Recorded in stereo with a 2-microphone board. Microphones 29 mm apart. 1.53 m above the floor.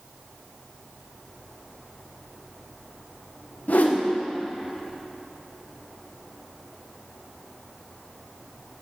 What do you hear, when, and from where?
3.7 s a whoosh: 65° left (ahead or behind), 0.7 m